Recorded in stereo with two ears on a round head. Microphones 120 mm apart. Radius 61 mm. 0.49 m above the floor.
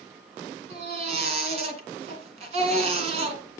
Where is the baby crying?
50° right (ahead or behind), 2 m.